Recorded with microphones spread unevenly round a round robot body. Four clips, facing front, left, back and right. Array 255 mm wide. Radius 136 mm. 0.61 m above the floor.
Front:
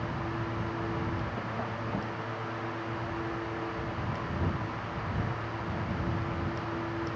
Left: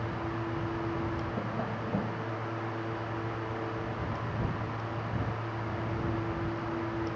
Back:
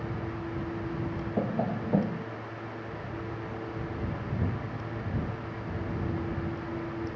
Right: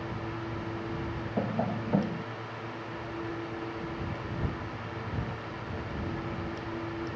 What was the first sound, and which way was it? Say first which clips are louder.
Tapping: right 3 dB, back 5 dB; 155° right.